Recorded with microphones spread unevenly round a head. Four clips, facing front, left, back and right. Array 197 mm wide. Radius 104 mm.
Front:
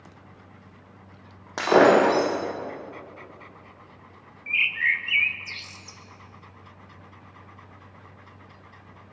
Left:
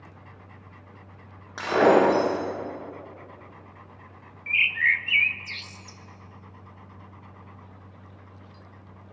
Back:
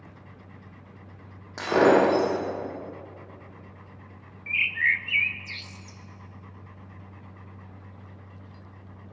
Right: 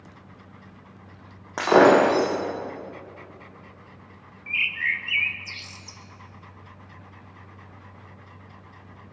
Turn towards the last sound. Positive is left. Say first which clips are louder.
# left 3 dB, even
turn(degrees=65)